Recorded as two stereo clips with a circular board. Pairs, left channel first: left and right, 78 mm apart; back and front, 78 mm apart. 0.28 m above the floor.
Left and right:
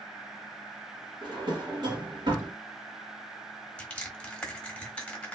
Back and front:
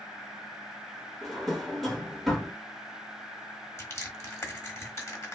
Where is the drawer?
90° right, 1.2 m.